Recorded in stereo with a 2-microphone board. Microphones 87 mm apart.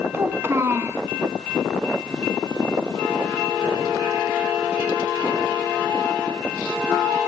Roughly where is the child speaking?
Right.